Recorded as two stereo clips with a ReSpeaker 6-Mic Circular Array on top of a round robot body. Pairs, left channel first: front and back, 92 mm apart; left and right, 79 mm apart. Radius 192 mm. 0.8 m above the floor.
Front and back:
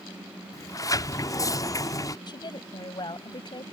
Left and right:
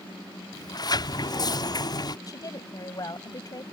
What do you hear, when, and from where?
0.5 s a sliding door: 55° left
2.3 s a woman speaking: 45° left